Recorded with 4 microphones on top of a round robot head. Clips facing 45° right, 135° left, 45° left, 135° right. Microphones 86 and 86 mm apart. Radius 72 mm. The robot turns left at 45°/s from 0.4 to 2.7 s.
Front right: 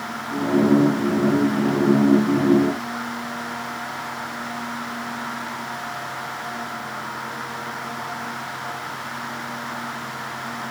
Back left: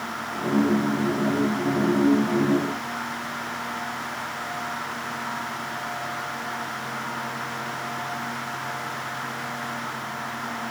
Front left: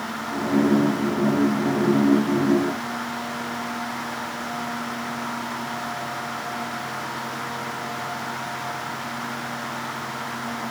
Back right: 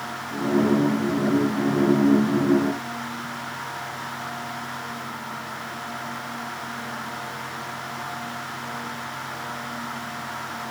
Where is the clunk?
I don't hear a clunk.